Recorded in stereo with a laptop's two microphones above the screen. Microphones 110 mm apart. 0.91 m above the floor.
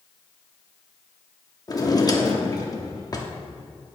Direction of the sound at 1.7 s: 35° left (ahead or behind).